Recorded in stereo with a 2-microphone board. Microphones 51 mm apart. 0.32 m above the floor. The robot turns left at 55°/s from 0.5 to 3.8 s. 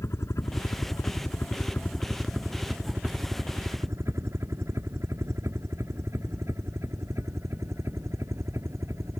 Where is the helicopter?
65° left (ahead or behind); by 9.2 s 70° right (ahead or behind).